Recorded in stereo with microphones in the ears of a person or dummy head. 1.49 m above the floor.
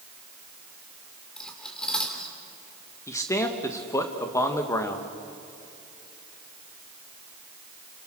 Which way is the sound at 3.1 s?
20° left (ahead or behind).